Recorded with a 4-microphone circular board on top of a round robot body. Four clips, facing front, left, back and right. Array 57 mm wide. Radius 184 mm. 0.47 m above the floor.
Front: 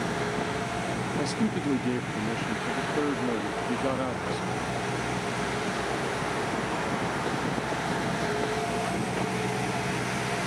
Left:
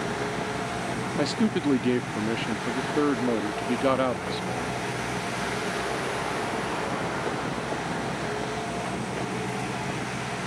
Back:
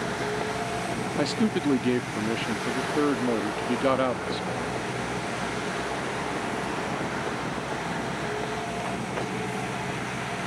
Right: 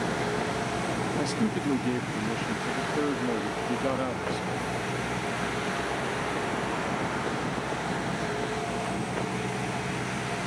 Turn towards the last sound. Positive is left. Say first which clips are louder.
# left 7 dB, back 5 dB
turn(degrees=135)